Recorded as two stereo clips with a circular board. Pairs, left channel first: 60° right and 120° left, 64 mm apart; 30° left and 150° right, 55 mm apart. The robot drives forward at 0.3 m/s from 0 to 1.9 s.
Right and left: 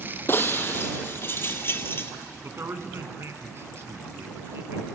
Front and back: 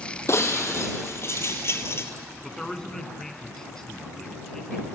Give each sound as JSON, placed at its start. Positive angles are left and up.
{"t": 0.3, "sound": "breaking glass", "azimuth_deg": -5, "distance_m": 1.5}
{"t": 2.4, "sound": "a man speaking", "azimuth_deg": 105, "distance_m": 1.4}